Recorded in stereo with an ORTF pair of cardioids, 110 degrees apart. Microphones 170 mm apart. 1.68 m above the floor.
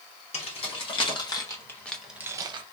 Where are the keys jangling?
40° left, 1.7 m; by 2.6 s 50° right, 0.7 m.